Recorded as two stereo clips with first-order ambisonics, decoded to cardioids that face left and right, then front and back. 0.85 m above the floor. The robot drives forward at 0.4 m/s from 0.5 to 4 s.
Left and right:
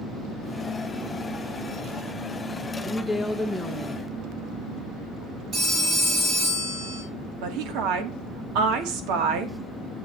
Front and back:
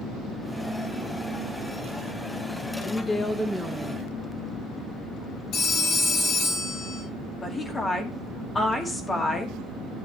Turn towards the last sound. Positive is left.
turn(degrees=-75)